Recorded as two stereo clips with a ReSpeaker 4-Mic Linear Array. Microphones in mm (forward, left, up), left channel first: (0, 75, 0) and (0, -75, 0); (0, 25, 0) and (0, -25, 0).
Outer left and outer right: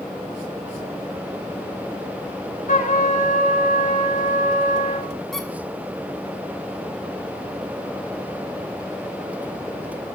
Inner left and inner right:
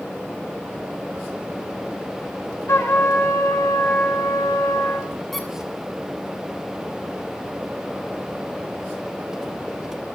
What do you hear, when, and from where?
2.7 s a trumpet: 65° left (ahead or behind), 4 m
5.3 s a squeak: centre (ahead or behind), 3 m